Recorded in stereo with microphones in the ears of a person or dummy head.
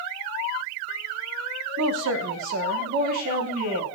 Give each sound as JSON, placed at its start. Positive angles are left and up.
{"t": 1.8, "sound": "a woman speaking", "side_deg": -80, "distance_m": 1.3}